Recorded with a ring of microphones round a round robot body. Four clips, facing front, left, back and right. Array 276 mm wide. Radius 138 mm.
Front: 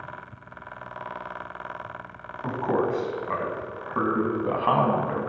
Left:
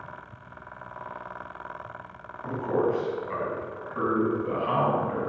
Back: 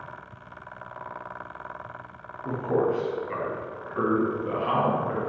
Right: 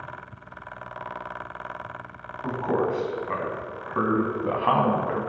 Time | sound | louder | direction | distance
2.4 | a man speaking | right 1 dB, even | 20° right | 3 m